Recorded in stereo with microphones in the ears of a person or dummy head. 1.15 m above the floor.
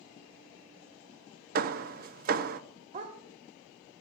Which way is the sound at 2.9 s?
40° right (ahead or behind).